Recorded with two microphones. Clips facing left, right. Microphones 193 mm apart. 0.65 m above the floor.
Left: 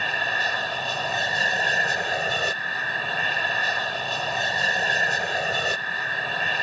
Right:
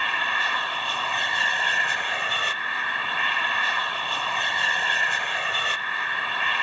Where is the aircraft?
40° left (ahead or behind).